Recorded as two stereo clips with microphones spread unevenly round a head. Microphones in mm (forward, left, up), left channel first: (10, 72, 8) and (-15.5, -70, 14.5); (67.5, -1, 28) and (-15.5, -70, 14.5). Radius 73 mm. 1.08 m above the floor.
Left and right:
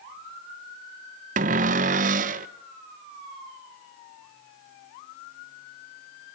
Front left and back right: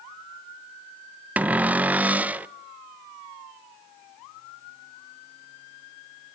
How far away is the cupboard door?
About 0.8 m.